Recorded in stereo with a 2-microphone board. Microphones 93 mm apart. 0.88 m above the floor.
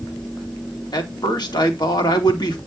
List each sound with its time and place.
0.9 s a man speaking: 50° left (ahead or behind), 2 m